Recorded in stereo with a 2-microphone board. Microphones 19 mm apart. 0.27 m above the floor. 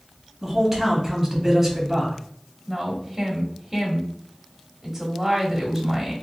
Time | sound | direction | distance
0.4 | a man speaking | 15° right (ahead or behind) | 1.3 m
2.7 | a woman speaking | 15° right (ahead or behind) | 1.0 m